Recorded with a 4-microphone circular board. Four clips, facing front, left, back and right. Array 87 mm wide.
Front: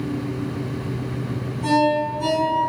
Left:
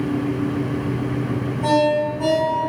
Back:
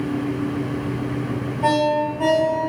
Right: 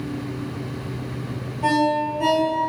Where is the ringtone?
175° right, 3 m.